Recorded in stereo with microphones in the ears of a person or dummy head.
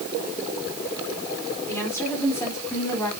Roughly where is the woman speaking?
Centre.